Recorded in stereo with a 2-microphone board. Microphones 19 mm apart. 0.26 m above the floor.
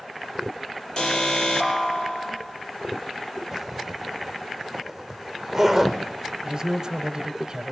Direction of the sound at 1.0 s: 40° left (ahead or behind).